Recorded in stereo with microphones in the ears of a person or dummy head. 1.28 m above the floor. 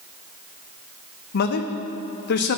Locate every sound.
1.3 s a man speaking: 60° left (ahead or behind), 0.8 m